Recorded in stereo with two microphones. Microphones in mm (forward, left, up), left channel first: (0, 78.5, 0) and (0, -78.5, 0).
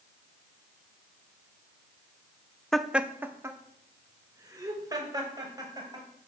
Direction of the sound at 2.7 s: 5° left (ahead or behind).